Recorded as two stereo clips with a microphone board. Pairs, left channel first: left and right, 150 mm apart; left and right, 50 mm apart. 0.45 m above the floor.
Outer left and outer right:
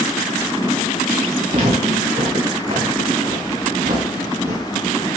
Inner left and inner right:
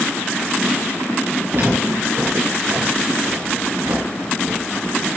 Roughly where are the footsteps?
Right.